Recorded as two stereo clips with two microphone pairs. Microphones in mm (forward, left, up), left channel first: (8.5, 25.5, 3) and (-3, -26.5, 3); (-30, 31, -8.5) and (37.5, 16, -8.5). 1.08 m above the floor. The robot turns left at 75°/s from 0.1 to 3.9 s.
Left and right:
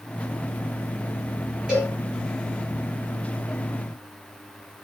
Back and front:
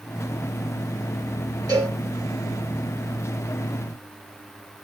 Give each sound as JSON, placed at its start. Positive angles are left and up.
{"t": 1.7, "sound": "a cowbell", "azimuth_deg": -25, "distance_m": 1.9}